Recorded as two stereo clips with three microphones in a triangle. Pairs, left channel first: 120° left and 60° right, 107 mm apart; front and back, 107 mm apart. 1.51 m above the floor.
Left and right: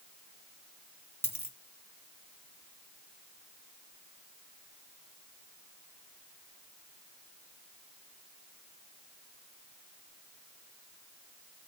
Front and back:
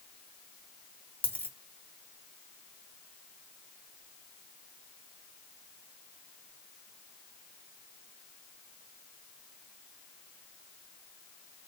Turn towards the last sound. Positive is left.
turn(degrees=140)